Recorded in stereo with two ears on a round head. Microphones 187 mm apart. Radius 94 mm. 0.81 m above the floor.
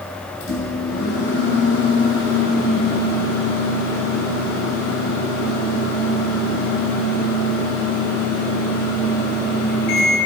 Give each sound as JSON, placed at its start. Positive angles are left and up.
{"t": 0.4, "sound": "a microwave", "side_deg": 65, "distance_m": 3.0}